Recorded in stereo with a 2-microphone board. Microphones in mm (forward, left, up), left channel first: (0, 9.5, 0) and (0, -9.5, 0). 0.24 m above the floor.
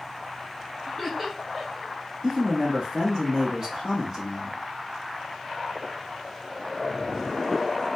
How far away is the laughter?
About 2 m.